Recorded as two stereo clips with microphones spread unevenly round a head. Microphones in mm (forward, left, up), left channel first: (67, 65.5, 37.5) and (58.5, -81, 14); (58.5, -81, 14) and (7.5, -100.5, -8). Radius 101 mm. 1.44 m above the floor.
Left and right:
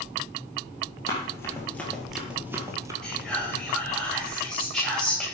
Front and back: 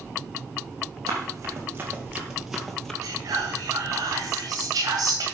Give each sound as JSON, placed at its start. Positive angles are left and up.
{"t": 1.1, "sound": "running footsteps", "azimuth_deg": 140, "distance_m": 2.0}
{"t": 3.0, "sound": "whispering", "azimuth_deg": 175, "distance_m": 2.5}